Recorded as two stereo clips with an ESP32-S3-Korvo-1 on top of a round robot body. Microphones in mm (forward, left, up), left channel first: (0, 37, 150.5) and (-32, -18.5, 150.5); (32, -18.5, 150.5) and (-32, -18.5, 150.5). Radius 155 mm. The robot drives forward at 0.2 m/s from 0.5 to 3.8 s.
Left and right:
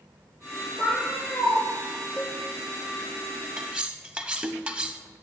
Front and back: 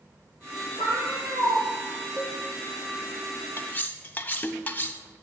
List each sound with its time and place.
0.8 s a cat meowing: 150° left, 2 m; by 1.6 s 155° left, 2.5 m
2.2 s a cowbell: 25° left, 1.2 m; by 2.4 s 30° left, 1.2 m
3.6 s cutlery clinking: 50° right, 0.6 m; by 5.0 s 55° right, 0.6 m